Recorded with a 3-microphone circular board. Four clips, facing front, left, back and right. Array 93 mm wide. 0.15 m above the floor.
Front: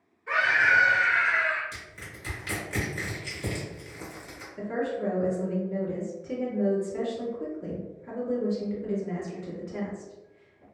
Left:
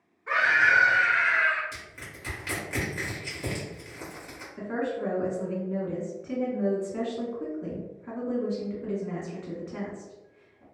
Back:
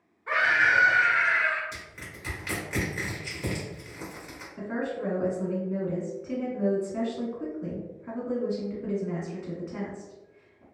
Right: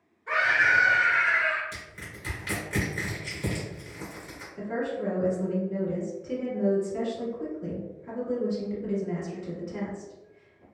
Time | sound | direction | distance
0.3 | a scream | 145° left | 1.9 m
1.7 | crushing | 145° left | 1.7 m
4.6 | a woman speaking | 125° left | 1.2 m